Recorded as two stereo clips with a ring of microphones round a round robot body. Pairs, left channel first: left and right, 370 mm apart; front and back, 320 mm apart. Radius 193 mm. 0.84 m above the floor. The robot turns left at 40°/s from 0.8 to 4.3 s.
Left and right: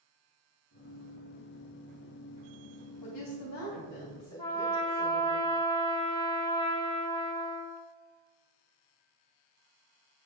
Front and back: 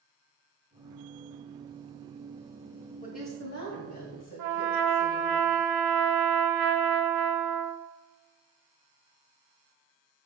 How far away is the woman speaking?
About 3 m.